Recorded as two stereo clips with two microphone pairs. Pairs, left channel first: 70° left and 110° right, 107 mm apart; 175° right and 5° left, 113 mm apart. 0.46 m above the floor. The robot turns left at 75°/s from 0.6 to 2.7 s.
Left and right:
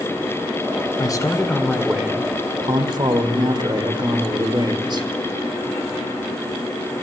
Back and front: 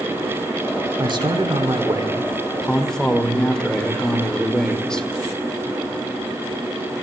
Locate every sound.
1.0 s a man speaking: 35° left, 1.4 m; by 5.1 s 95° right, 1.4 m